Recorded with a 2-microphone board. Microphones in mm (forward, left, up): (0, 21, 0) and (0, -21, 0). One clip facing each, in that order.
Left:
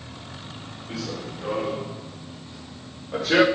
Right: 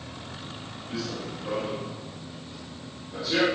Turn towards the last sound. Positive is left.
turn(degrees=50)  # may be behind; listen again after turning